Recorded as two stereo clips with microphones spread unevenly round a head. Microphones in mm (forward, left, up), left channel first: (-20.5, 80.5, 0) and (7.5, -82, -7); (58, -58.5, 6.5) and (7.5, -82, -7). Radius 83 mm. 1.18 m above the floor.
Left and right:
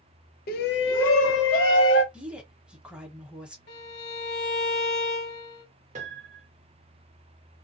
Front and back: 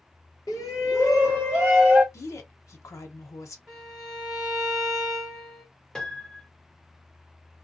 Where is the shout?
65° left, 0.6 m; by 2.0 s 115° left, 1.3 m.